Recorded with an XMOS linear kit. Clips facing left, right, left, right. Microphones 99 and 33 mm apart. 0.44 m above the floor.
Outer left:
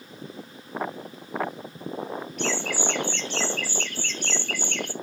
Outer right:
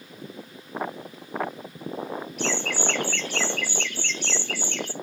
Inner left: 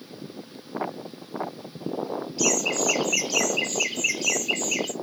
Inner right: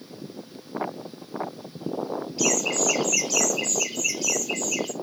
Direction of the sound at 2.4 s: Centre (ahead or behind).